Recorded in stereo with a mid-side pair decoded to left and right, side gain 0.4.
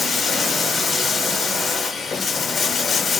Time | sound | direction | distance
0.0 | running water | 50° left | 1.0 m